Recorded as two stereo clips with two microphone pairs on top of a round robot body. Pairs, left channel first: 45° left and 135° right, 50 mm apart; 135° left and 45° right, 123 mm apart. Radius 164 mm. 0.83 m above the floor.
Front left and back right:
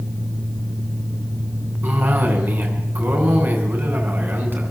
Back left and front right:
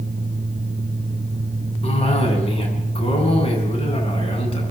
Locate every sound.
1.8 s a cough: 175° left, 8 m